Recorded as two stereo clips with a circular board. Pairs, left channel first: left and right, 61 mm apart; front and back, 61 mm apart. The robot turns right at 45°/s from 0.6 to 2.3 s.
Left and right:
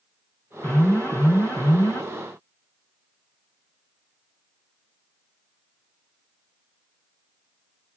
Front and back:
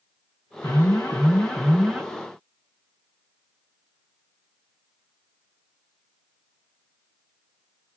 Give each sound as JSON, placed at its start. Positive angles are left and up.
{"t": 0.6, "sound": "an alarm", "azimuth_deg": 30, "distance_m": 2.0}